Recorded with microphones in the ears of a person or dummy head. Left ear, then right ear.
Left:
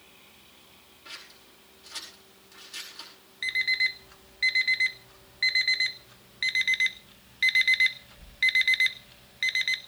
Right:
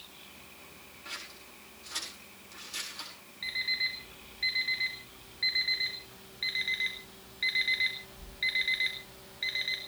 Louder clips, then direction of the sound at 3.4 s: Left 6 dB; 30° left (ahead or behind).